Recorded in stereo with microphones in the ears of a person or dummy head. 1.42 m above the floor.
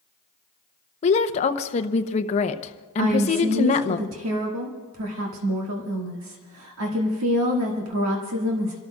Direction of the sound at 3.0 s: 85° right.